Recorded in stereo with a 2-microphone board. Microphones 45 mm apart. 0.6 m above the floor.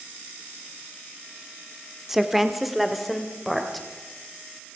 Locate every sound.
2.1 s a woman speaking: 5° right (ahead or behind), 1.1 m; by 3.9 s centre (ahead or behind), 2.5 m